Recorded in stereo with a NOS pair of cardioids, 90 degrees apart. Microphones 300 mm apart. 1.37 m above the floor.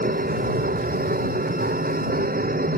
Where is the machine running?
25° right.